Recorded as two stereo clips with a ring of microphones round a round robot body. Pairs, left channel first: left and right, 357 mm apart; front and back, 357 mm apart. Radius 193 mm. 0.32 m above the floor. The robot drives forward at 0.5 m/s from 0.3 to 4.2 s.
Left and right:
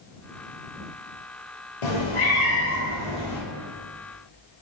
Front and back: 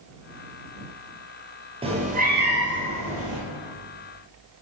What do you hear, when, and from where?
1.8 s a cat meowing: 105° left, 1.3 m; by 3.4 s 130° left, 1.7 m